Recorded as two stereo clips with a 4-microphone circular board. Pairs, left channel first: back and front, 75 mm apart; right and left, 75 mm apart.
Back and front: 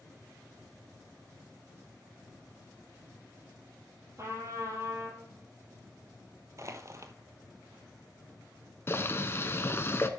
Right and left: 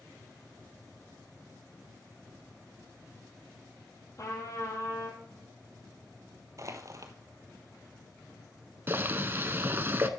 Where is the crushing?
45° left, 1.0 m.